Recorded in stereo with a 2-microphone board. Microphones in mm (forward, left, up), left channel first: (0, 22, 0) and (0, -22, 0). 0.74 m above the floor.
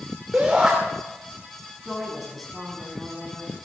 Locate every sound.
0.3 s a shout: 20° right (ahead or behind), 3 m
1.9 s a woman speaking: 5° right (ahead or behind), 6 m